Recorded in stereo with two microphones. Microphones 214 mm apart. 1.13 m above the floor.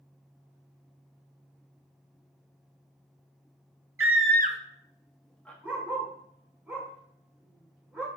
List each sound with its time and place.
4.0 s a scream: 80° right, 0.6 m; by 5.5 s 5° left (ahead or behind), 1.7 m
5.6 s a dog barking: 5° right (ahead or behind), 4 m